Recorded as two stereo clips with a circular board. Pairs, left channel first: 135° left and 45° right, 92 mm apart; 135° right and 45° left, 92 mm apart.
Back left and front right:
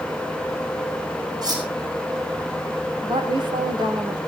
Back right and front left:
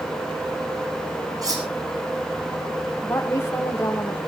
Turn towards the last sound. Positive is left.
turn(degrees=-70)